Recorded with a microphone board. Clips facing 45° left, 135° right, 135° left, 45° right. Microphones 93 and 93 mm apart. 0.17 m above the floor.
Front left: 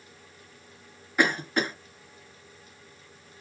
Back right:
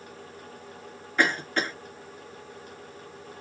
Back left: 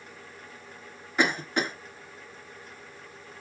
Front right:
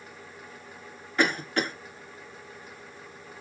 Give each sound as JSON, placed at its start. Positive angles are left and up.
{"t": 1.2, "sound": "a cough", "azimuth_deg": 105, "distance_m": 1.5}